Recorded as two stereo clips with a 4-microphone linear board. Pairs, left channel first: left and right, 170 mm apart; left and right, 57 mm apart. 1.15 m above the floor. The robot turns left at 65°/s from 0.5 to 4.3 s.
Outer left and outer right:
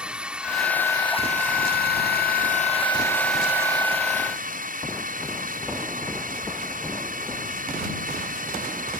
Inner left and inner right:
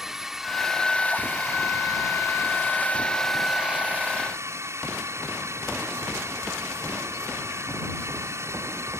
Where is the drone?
175° right; by 9.0 s 60° right.